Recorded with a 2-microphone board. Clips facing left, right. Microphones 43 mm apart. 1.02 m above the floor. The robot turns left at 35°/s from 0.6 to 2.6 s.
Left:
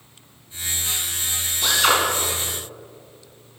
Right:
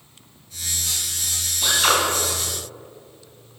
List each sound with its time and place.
1.6 s a drill: centre (ahead or behind), 3.5 m; by 2.0 s 15° right (ahead or behind), 3.5 m